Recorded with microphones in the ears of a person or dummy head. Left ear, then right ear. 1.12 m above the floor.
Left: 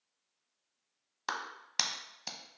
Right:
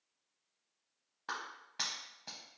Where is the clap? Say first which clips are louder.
Left 4 dB; 75° left (ahead or behind), 1.0 m.